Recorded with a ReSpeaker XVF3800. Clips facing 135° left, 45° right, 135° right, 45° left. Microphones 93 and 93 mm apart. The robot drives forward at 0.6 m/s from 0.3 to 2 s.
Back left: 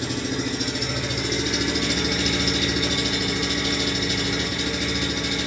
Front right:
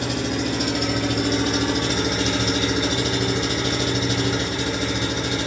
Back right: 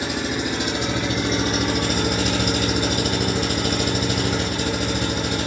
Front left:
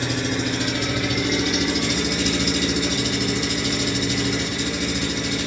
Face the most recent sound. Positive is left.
turn(degrees=-100)